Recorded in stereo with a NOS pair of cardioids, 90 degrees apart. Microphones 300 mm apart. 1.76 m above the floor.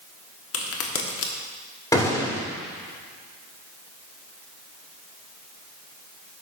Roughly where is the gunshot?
Ahead.